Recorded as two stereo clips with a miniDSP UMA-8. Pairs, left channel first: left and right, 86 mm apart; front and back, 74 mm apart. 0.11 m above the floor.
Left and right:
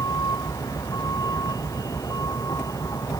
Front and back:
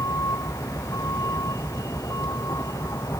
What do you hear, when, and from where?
0.0 s a vehicle: 45° left